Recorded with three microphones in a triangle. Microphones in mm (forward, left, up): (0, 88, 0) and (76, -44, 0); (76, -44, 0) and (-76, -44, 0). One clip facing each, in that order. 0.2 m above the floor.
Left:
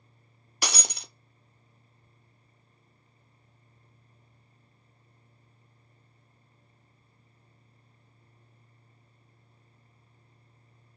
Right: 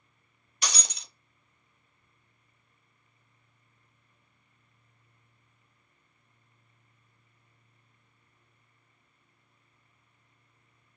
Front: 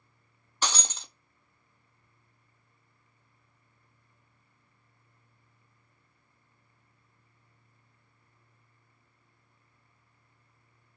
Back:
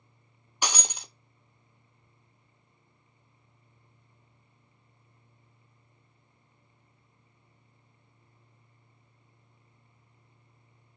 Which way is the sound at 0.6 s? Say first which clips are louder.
Left 3 dB, even; 105° left.